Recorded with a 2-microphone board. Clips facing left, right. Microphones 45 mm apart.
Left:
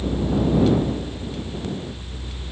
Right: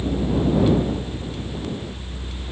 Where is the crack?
I don't hear a crack.